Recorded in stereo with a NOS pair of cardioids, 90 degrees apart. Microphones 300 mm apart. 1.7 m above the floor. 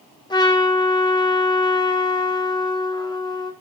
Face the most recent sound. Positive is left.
turn(degrees=15)